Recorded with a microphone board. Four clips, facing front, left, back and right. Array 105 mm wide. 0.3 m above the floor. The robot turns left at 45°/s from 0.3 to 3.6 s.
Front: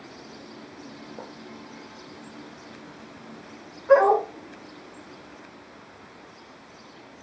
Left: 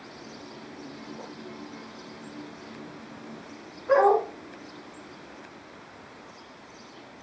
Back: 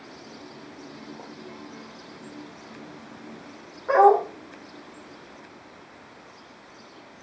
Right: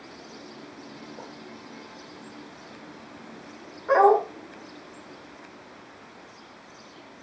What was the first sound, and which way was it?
Writing, 20° right.